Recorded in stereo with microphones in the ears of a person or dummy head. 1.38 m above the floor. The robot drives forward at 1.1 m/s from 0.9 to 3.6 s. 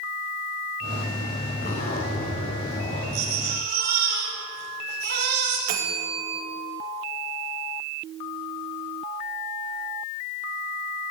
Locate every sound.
1.6 s a zipper: 50° left (ahead or behind), 4.5 m; by 3.0 s 35° left (ahead or behind), 5.5 m
3.1 s a baby crying: 50° right (ahead or behind), 6 m; by 5.6 s 45° right (ahead or behind), 6.5 m
5.7 s a bell: 40° right (ahead or behind), 2.5 m